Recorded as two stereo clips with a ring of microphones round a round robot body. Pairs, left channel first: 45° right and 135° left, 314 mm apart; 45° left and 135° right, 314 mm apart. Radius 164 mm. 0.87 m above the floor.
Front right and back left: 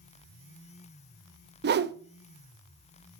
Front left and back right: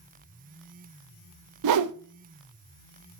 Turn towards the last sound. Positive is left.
turn(degrees=-165)